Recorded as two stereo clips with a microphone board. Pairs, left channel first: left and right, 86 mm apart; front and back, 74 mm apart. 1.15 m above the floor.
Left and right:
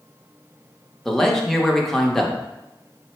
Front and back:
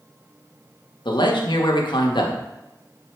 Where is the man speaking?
5° left, 0.7 m.